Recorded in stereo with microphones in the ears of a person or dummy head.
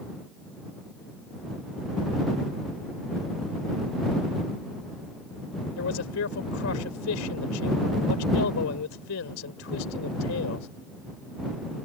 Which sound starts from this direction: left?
A man speaking, at 5.8 s.